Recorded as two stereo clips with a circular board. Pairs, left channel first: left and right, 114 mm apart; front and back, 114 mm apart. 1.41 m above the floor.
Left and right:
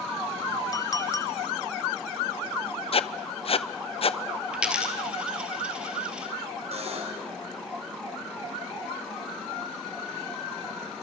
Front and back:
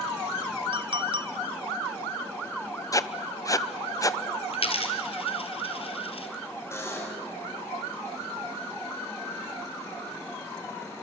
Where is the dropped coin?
10° right, 2.5 m.